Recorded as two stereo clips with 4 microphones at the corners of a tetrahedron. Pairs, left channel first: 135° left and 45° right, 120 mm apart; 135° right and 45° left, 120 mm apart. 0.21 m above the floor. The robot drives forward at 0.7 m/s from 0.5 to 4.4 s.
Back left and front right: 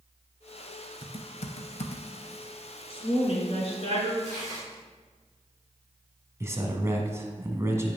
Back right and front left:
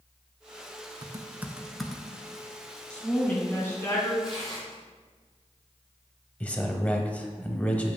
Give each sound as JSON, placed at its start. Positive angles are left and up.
{"t": 1.0, "sound": "typing on a keyboard", "azimuth_deg": 95, "distance_m": 0.7}
{"t": 2.9, "sound": "a woman speaking", "azimuth_deg": 145, "distance_m": 1.8}
{"t": 4.2, "sound": "tearing paper", "azimuth_deg": 130, "distance_m": 3.0}
{"t": 6.4, "sound": "a man speaking", "azimuth_deg": -70, "distance_m": 1.0}